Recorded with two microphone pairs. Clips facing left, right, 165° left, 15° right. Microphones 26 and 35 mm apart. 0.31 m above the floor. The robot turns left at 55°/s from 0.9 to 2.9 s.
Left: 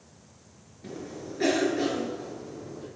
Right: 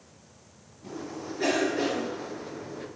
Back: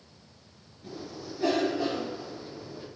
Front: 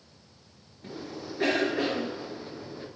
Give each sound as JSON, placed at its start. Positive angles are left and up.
{"t": 0.8, "sound": "a cough", "azimuth_deg": 40, "distance_m": 5.5}